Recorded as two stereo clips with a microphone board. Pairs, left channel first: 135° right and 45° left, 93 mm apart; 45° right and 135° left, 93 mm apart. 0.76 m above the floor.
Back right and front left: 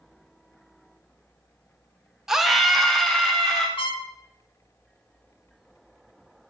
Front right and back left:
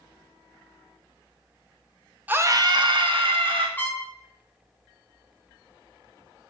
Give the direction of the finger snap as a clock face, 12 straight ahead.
No finger snap in this recording.